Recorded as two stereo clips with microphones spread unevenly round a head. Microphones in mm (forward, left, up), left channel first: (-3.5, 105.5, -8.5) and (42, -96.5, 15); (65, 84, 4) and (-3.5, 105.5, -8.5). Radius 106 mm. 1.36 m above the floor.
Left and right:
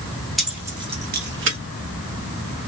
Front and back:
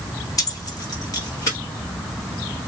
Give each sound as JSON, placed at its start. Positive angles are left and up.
{"t": 0.4, "sound": "keys jangling", "azimuth_deg": 10, "distance_m": 1.5}